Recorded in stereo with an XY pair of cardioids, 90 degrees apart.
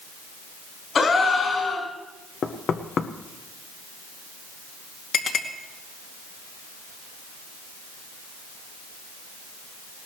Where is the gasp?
50° left, 4 m.